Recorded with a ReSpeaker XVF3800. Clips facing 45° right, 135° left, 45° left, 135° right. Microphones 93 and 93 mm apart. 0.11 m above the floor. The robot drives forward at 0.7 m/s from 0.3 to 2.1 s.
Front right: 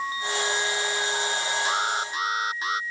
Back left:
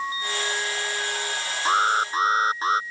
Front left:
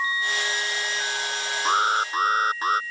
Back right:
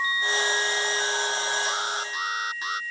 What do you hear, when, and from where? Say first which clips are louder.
1.6 s an alarm: back left 10 dB, front left 8 dB; 80° left; by 2.8 s 85° left